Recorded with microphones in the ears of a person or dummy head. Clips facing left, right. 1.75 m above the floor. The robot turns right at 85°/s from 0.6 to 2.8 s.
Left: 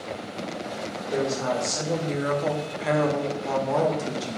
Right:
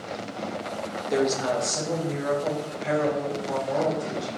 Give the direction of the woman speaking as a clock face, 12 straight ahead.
1 o'clock.